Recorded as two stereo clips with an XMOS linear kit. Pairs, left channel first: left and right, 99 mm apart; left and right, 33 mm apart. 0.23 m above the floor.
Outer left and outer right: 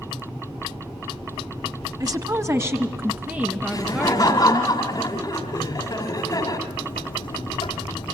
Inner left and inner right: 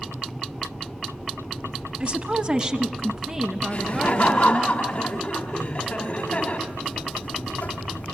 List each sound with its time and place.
2.0 s a woman speaking: 40° right (ahead or behind), 1.3 m; by 4.7 s 5° right (ahead or behind), 4 m
3.7 s laughter: 40° left (ahead or behind), 2 m
6.7 s a buzzer: 55° left (ahead or behind), 3.5 m